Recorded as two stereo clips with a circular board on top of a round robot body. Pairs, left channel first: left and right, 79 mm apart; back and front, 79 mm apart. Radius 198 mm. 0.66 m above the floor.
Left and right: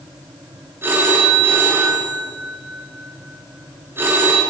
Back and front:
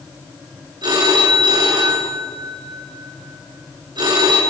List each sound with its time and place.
0.8 s a phone ringing: 30° right, 8.5 m